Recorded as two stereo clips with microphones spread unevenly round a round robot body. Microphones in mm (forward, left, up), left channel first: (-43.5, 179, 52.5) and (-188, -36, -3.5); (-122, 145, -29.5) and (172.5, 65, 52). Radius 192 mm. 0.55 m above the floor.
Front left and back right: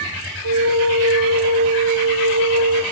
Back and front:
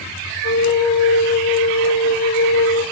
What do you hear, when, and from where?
0.4 s a flute: 135° right, 3 m